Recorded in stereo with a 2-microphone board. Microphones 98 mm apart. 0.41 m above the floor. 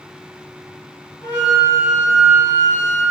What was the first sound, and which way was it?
A flute, 30° left (ahead or behind).